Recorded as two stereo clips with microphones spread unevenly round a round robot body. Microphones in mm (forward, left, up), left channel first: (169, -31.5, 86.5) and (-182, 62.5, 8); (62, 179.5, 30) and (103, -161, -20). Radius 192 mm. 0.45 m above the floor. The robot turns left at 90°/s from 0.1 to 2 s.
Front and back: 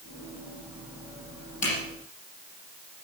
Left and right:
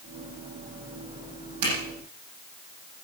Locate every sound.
1.6 s a zipper: 85° right, 7 m; by 1.7 s 95° right, 7 m